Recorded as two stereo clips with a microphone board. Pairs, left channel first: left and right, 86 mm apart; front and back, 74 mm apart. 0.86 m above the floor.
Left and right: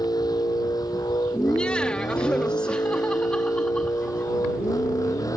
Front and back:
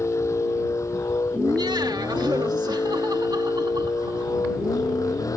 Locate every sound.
0.0 s a vehicle: 50° left; by 5.4 s 40° left
1.3 s laughter: 170° left